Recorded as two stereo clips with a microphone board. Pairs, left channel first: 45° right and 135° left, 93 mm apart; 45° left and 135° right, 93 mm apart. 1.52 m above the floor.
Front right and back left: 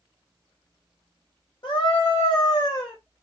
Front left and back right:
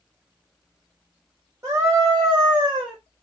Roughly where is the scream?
Right.